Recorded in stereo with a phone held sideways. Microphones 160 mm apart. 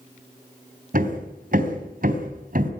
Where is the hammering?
65° right (ahead or behind), 3.5 m.